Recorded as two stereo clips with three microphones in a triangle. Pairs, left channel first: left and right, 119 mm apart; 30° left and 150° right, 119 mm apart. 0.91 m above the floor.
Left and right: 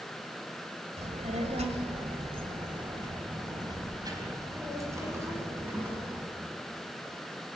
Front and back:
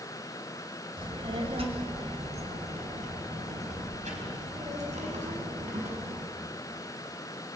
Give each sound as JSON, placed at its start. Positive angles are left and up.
{"t": 1.0, "sound": "a child speaking", "azimuth_deg": -105, "distance_m": 3.0}